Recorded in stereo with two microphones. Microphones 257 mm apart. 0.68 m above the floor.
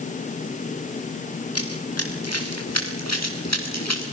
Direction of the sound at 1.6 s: 65° left (ahead or behind).